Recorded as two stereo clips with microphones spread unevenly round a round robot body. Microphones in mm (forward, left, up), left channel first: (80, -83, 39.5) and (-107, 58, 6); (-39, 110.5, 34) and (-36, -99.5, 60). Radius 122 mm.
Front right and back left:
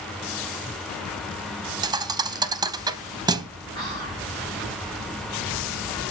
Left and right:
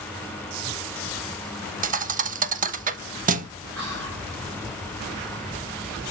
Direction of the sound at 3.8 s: 115° right.